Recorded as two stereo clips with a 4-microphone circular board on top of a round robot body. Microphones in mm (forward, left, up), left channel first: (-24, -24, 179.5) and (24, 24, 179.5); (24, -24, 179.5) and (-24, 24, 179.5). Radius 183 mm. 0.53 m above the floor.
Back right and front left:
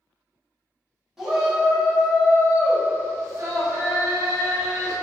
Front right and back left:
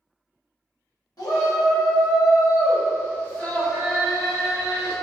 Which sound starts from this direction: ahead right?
A shout, at 1.2 s.